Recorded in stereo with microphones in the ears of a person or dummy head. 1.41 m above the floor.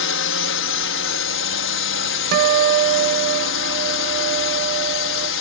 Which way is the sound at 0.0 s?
60° left (ahead or behind).